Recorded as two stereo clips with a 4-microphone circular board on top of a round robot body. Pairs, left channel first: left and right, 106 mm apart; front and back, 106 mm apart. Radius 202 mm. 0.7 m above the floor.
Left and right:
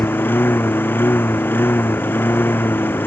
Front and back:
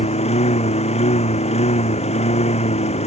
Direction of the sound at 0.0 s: 20° left.